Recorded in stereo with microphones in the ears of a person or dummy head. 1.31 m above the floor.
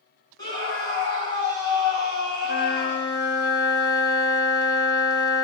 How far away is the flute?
About 2.5 m.